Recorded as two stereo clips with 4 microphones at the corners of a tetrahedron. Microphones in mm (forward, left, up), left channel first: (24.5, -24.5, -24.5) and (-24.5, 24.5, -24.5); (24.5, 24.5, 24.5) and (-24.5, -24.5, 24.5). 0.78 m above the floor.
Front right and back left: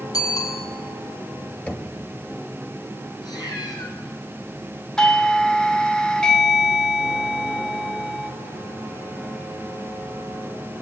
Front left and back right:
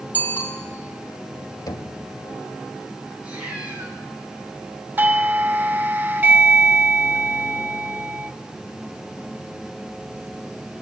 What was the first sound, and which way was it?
A bicycle bell, 20° right.